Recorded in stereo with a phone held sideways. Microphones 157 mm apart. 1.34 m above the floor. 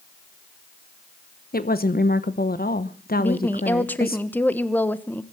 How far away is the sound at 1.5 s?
About 1.0 m.